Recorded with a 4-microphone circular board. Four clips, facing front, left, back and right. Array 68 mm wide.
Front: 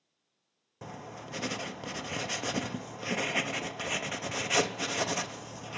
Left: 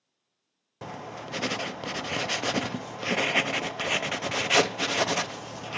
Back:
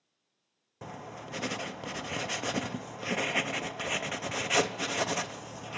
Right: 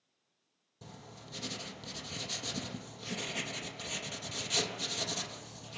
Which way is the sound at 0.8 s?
95° left.